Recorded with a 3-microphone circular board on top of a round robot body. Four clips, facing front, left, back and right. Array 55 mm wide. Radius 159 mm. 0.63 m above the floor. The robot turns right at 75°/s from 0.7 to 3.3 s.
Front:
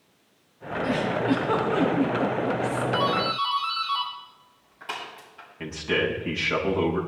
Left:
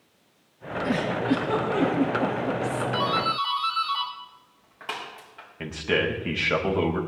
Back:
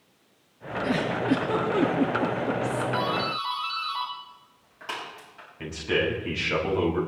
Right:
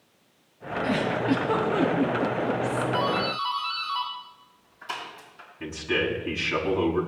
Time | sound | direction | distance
0.8 | a giggle | 75° right | 3.5 m
2.9 | a doorbell | 70° left | 6.5 m
5.6 | a man speaking | 85° left | 4 m